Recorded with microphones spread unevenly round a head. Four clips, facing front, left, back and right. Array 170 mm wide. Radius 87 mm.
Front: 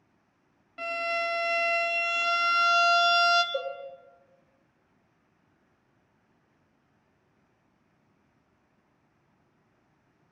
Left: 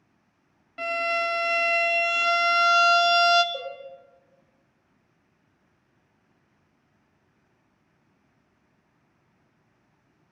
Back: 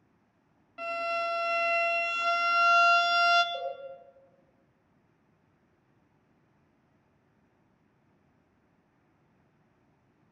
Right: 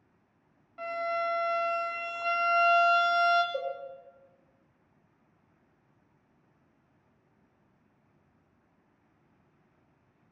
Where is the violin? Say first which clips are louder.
Left 4 dB, front 1 dB; 70° left, 0.9 m.